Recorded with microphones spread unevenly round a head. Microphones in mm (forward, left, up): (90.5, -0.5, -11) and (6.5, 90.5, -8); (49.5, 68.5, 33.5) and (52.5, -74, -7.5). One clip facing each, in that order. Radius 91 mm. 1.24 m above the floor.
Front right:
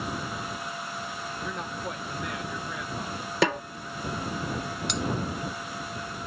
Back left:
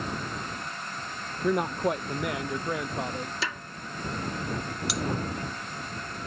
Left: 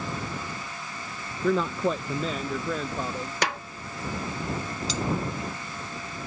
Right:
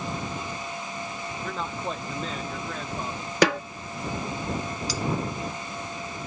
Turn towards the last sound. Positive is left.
turn(degrees=45)